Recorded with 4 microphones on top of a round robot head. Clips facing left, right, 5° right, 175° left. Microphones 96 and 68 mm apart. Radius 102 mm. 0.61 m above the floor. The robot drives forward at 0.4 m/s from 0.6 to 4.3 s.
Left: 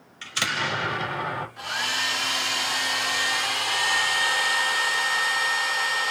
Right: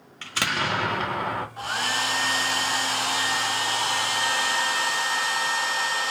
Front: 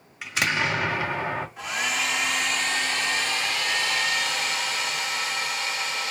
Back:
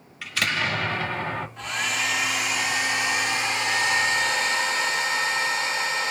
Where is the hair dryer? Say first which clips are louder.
Right 2 dB, even; 85° right, 1.4 m; by 6.1 s 140° right, 1.7 m.